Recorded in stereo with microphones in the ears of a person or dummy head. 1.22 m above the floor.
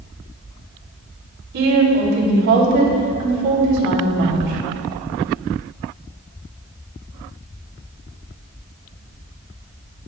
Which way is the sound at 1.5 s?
55° right (ahead or behind).